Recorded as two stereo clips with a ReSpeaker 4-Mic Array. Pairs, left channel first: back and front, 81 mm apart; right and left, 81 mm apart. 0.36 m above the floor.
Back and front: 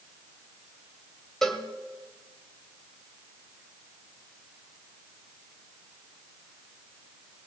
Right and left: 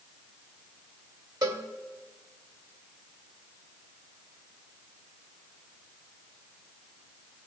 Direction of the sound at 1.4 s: 95° left.